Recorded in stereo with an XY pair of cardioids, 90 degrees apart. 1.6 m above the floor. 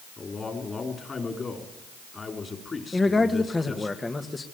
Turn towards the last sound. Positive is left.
turn(degrees=25)